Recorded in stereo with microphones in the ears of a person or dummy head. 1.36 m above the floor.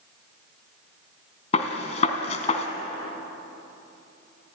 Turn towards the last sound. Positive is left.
turn(degrees=35)  # may be behind; listen again after turning